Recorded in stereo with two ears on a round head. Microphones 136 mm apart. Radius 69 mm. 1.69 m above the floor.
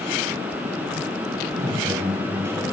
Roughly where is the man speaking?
Centre.